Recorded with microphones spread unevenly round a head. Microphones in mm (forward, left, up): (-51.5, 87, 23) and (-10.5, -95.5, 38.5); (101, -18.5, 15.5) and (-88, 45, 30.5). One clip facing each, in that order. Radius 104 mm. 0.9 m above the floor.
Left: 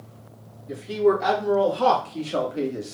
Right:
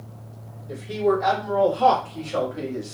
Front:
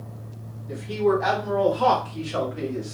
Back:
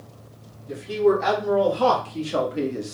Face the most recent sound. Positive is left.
turn(degrees=165)